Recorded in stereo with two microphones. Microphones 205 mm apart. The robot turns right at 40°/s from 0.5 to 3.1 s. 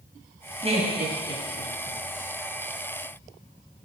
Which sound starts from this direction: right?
Laughter, at 0.6 s.